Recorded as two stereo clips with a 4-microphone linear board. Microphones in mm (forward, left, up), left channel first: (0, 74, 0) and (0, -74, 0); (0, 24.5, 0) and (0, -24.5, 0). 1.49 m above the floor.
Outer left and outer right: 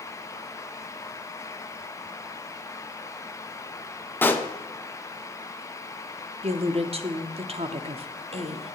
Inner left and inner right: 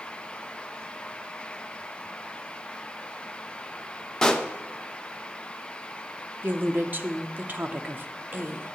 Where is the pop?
10° left (ahead or behind), 0.6 m.